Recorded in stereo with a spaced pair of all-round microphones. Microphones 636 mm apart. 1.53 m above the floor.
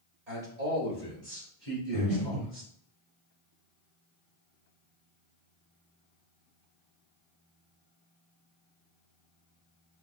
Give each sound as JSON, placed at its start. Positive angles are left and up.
{"t": 0.3, "sound": "a man speaking", "side_deg": -80, "distance_m": 1.8}
{"t": 1.9, "sound": "breathing", "side_deg": -60, "distance_m": 1.9}